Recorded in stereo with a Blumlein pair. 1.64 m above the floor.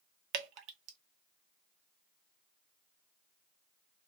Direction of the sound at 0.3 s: 40° right.